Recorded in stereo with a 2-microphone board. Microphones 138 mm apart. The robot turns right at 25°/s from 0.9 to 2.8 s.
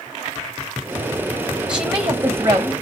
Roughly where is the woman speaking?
Centre.